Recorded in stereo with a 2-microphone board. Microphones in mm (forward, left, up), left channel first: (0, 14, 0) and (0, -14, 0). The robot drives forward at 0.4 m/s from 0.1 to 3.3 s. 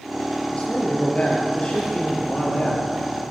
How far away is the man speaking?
About 5.5 m.